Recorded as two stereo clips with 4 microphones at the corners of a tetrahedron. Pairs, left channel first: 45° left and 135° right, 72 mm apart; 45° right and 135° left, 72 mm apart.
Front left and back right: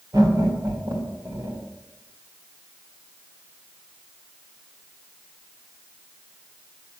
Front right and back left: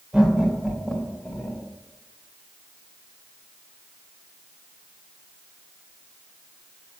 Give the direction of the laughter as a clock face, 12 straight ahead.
5 o'clock.